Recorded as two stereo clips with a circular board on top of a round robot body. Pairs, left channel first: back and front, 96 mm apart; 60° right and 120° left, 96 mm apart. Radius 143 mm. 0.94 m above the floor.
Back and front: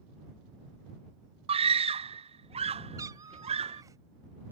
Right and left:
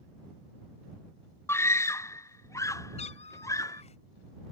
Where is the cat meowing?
60° right.